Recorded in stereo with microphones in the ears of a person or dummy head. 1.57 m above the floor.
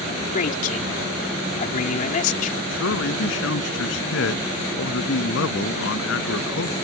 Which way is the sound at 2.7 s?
70° left (ahead or behind).